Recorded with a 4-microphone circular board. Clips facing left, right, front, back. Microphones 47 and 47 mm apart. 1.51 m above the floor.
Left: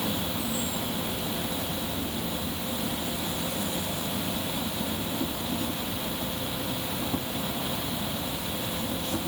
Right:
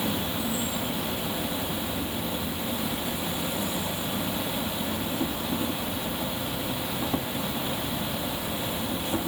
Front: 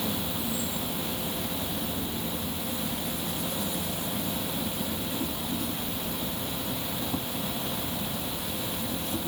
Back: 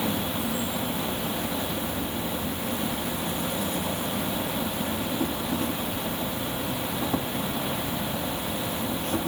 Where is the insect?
150° right.